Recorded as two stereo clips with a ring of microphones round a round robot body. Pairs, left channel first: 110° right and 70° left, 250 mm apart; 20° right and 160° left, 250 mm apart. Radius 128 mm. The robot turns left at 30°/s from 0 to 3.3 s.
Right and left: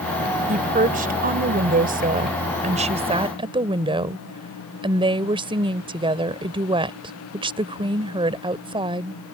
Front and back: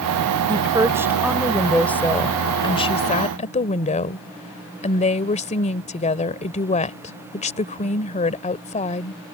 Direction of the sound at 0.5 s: 100° left.